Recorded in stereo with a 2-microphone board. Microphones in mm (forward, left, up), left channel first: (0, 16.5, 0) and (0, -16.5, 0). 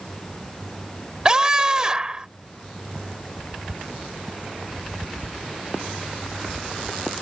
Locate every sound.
1.2 s a scream: 25° right (ahead or behind)